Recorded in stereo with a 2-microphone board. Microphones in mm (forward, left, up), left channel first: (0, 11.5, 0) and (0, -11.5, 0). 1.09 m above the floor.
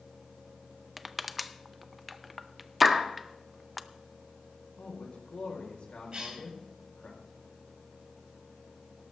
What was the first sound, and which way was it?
Crushing, 5° right (ahead or behind).